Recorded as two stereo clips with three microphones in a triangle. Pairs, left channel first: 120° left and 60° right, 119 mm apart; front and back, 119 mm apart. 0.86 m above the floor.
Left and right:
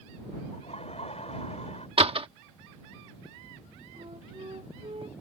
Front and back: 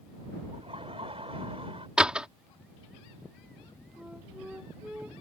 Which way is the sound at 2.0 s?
100° right.